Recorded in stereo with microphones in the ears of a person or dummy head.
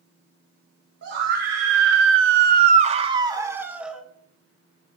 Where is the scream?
55° right (ahead or behind), 2 m; by 4.0 s 5° right (ahead or behind), 2.5 m.